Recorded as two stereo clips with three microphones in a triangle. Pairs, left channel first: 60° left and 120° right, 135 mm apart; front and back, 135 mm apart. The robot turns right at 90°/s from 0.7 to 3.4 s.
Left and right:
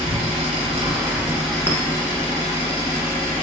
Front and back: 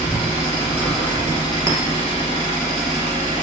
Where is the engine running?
100° right, 1.7 m; by 3.4 s 145° left, 1.7 m.